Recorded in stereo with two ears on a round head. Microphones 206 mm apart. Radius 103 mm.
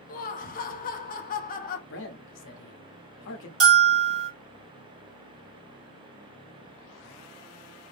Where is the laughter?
35° left (ahead or behind), 0.6 m.